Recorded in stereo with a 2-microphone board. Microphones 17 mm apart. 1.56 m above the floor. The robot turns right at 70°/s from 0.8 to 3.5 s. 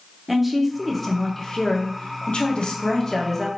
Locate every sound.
0.3 s a woman speaking: 15° right, 0.6 m; by 3.5 s 175° left, 0.6 m